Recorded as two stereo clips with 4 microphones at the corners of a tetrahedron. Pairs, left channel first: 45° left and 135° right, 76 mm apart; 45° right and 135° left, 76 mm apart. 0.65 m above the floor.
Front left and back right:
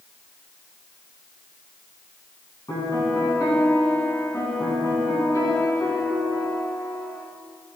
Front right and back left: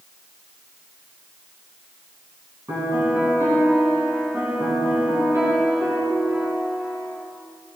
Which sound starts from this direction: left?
A piano, at 2.7 s.